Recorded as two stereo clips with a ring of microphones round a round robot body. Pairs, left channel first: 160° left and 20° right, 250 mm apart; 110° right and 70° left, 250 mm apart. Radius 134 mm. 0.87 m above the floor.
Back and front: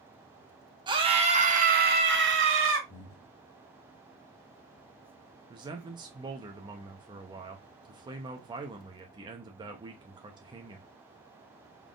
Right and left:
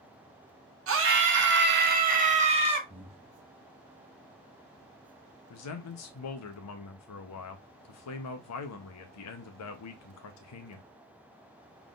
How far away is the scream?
About 1.5 m.